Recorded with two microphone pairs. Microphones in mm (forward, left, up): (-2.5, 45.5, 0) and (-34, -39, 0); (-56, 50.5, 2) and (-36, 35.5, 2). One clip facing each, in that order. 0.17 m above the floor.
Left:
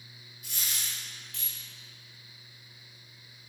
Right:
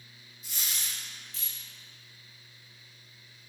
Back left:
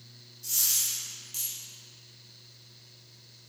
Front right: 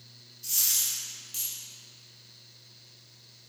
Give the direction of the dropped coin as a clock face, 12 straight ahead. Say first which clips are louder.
Even, even; 11 o'clock.